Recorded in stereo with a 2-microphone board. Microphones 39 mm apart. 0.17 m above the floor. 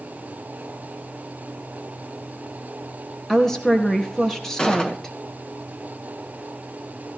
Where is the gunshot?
25° left (ahead or behind), 1.8 m.